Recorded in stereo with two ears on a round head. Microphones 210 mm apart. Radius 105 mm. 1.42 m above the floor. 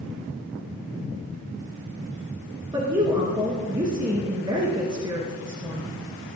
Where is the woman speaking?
20° right (ahead or behind), 2 m.